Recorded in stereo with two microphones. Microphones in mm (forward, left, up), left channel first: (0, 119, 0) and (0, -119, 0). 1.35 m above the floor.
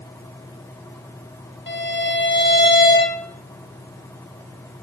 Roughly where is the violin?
Left.